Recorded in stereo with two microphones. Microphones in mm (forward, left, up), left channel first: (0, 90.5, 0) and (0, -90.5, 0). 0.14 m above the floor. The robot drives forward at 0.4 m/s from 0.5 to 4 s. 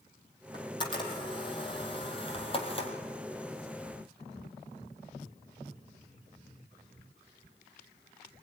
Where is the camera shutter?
25° left (ahead or behind), 4.5 m; by 2.9 s 30° left (ahead or behind), 3.5 m.